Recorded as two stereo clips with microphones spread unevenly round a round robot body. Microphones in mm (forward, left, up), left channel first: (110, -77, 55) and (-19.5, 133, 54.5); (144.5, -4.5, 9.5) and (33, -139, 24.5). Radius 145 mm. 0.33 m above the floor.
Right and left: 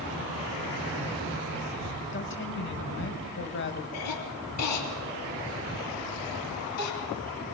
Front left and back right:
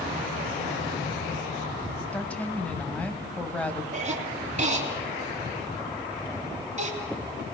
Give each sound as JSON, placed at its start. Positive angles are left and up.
{"t": 2.1, "sound": "a woman speaking", "azimuth_deg": -30, "distance_m": 2.5}
{"t": 3.9, "sound": "a cough", "azimuth_deg": -80, "distance_m": 3.0}